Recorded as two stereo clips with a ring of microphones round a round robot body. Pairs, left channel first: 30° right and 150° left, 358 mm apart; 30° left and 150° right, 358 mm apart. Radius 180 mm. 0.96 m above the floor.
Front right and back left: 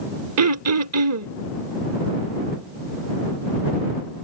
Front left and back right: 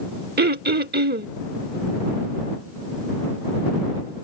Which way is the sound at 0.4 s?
160° left.